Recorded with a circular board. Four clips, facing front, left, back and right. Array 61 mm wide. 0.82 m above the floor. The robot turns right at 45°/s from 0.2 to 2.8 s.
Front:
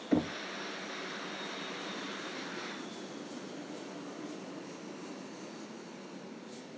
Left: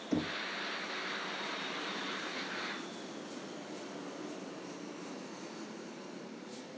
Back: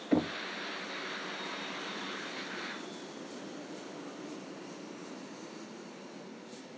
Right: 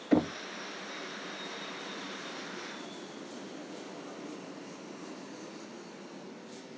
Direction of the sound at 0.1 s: 100° right.